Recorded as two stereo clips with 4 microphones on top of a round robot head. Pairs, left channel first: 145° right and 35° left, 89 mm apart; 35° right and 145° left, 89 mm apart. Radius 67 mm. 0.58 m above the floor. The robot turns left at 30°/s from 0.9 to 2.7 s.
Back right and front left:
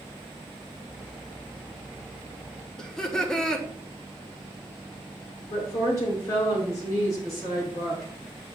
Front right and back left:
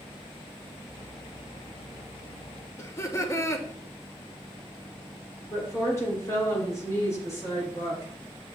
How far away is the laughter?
About 0.8 m.